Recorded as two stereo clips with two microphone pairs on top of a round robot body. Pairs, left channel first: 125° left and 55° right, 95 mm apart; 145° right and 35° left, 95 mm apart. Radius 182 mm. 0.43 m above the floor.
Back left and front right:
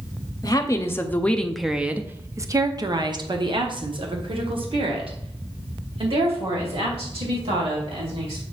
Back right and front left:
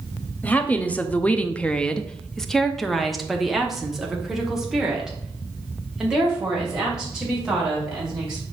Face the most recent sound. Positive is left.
turn(degrees=-45)